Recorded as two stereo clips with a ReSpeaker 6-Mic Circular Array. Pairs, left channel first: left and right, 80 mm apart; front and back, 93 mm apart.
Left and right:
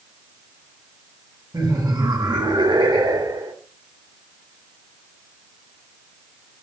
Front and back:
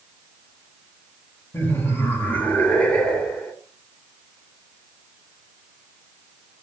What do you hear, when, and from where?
1.5 s laughter: 65° right, 3 m; by 3.5 s 80° right, 2.5 m